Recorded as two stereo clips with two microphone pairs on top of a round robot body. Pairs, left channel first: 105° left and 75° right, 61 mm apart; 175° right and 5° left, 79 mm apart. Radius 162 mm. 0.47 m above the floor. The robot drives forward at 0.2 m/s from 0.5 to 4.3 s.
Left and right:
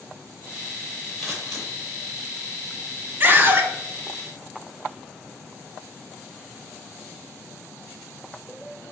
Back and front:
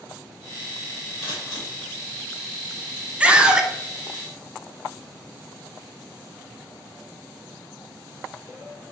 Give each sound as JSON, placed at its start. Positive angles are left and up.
{"t": 1.2, "sound": "scissors", "azimuth_deg": -175, "distance_m": 1.6}
{"t": 3.2, "sound": "a scream", "azimuth_deg": -30, "distance_m": 0.8}